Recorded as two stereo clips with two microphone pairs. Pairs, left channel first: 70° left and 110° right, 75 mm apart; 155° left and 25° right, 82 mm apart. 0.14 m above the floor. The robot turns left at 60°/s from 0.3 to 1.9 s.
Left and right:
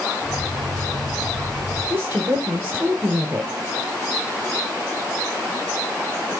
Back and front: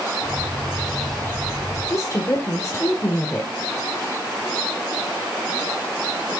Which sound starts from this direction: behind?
A woman speaking, at 1.9 s.